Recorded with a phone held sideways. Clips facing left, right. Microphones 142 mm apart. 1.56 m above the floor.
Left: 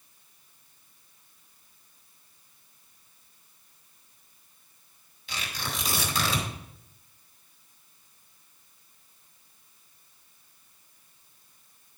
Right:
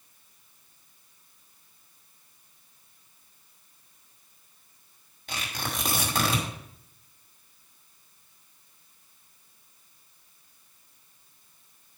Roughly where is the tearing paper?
Right.